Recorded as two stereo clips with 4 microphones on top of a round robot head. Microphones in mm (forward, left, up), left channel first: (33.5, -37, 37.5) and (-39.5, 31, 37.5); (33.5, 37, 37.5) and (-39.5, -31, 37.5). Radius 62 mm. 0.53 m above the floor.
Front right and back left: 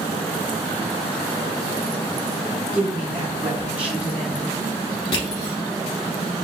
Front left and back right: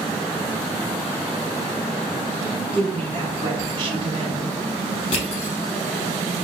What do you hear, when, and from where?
2.7 s a woman speaking: 150° right, 1.7 m
5.1 s crushing: 10° left, 1.4 m